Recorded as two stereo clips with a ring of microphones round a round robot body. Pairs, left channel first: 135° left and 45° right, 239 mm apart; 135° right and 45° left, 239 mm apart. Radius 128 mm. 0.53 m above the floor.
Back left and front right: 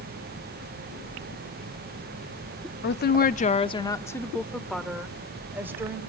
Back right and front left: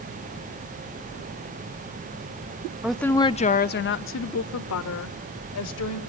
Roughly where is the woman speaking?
Behind left.